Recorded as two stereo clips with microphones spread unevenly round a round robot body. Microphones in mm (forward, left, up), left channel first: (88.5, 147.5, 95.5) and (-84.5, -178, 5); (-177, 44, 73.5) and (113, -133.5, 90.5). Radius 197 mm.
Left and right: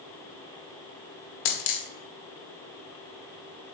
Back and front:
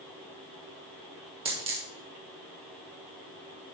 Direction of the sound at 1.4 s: 45° left.